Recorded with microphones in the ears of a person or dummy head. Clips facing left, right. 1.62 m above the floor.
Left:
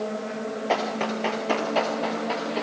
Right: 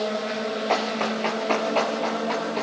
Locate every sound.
0.7 s running footsteps: 5° left (ahead or behind), 7.5 m